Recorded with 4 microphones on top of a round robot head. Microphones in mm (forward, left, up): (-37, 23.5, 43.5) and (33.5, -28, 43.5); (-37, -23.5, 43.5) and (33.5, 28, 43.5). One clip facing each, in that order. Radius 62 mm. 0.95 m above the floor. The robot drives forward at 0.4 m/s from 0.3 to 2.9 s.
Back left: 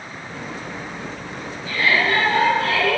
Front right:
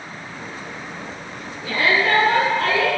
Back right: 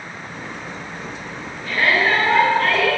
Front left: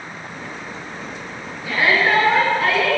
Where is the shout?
45° right, 9.5 m; by 3.0 s 50° right, 9 m.